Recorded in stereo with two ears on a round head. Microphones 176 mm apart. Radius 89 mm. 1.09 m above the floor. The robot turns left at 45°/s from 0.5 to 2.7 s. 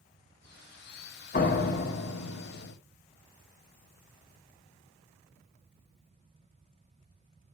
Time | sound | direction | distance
1.3 | a door slam | 135° left | 2 m